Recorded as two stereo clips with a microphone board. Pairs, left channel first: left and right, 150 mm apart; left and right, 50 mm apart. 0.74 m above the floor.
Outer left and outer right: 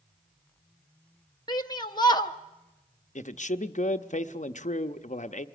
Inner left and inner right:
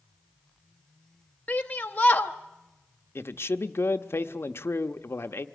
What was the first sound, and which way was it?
A shout, 30° left (ahead or behind).